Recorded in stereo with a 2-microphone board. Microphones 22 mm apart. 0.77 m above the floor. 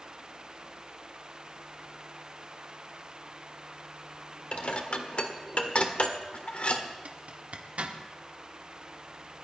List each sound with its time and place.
4.5 s dishes clattering: 60° left (ahead or behind), 1.4 m
7.0 s a zipper: 75° right (ahead or behind), 1.4 m